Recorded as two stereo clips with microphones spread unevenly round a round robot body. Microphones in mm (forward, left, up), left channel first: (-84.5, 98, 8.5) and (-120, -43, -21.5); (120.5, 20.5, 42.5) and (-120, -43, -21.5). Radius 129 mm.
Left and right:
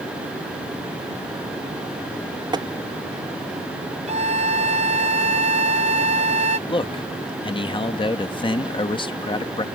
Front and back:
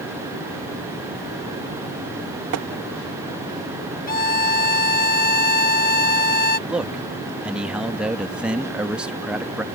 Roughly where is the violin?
Ahead right.